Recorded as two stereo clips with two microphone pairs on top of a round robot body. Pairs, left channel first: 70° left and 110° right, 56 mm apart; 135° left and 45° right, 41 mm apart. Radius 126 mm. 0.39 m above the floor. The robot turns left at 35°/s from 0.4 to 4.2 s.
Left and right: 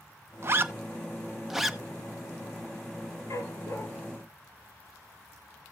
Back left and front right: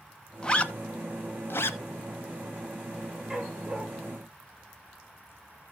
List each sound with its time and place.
0.4 s a zipper: 155° right, 0.9 m; by 1.8 s 160° left, 0.9 m
3.3 s a dog barking: 40° left, 3 m; by 3.9 s 20° left, 3 m